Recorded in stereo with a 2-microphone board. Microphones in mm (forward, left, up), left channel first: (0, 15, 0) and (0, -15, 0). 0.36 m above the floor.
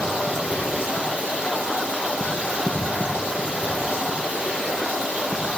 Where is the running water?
45° right (ahead or behind), 6 m.